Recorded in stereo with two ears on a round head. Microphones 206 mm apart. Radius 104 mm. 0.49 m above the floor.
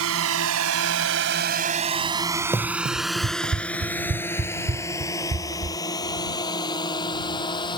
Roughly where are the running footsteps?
Centre.